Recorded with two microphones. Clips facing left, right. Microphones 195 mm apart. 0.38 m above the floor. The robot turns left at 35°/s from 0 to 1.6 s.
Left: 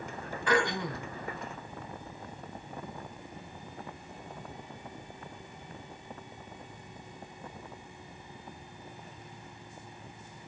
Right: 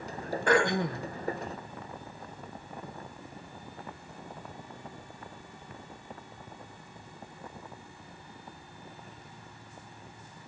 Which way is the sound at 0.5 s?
50° right (ahead or behind).